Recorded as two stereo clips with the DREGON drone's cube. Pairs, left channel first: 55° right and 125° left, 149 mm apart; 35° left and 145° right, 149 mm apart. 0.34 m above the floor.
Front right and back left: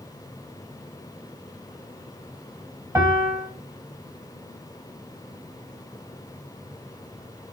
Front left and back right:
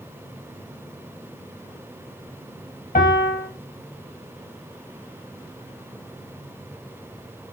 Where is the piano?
55° left, 0.6 m.